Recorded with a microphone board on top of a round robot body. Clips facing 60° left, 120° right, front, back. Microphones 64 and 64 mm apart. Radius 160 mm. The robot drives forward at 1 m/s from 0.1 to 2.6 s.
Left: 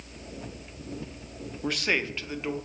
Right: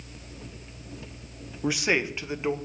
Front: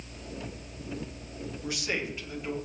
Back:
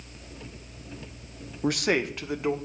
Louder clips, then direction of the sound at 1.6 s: Right 3 dB, back 9 dB; 160° left.